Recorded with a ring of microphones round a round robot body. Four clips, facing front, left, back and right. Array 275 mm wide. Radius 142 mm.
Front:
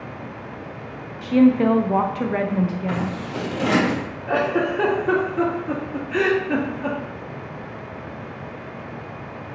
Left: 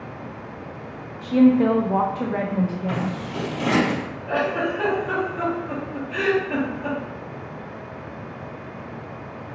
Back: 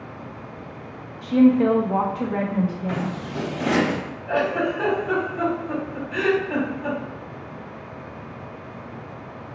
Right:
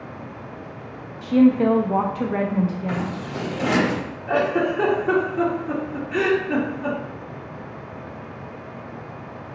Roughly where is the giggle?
Ahead.